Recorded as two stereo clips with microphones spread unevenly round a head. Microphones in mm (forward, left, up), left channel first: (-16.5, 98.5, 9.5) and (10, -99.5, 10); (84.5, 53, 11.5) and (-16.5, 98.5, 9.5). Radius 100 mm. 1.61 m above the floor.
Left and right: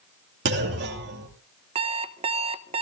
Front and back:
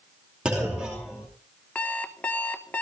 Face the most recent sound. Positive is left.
turn(degrees=-90)